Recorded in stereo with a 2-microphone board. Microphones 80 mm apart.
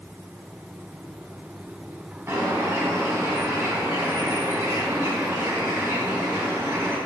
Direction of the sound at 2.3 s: 25° right (ahead or behind).